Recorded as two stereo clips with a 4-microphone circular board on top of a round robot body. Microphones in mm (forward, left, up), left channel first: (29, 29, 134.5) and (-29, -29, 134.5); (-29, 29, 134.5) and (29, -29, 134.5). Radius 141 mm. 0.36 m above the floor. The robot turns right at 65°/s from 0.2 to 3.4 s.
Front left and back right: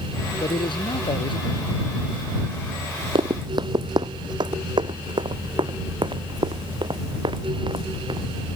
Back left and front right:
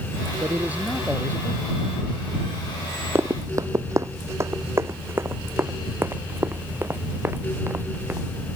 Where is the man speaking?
5° left; by 1.6 s 85° left.